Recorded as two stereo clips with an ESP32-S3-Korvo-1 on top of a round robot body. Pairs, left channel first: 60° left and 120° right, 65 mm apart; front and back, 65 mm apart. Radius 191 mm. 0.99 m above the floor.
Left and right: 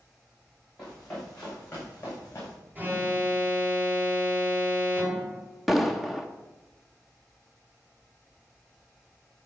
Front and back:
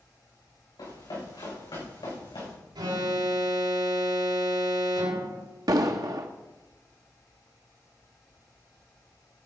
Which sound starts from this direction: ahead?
Running footsteps, at 0.8 s.